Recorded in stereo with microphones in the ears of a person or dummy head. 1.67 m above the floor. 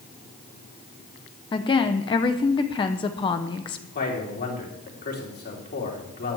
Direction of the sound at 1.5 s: 25° left (ahead or behind).